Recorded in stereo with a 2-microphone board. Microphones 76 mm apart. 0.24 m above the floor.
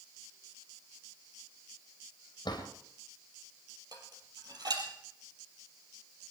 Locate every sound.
2.5 s a drawer: 75° left (ahead or behind), 4 m
3.9 s dishes clattering: 65° right (ahead or behind), 4 m